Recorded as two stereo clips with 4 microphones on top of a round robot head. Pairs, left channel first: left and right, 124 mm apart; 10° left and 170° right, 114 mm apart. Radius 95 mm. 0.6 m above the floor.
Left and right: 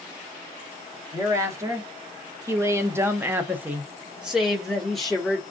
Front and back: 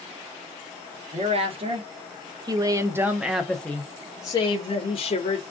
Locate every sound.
1.1 s a woman speaking: 155° right, 1.4 m; by 5.4 s 5° left, 1.2 m